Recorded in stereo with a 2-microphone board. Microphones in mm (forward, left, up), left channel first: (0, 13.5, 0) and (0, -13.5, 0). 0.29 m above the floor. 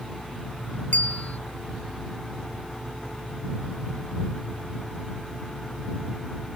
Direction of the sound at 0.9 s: 80° left.